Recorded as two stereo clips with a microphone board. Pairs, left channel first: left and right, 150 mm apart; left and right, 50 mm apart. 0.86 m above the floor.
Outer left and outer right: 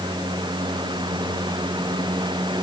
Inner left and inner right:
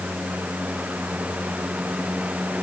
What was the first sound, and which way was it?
Only background noise.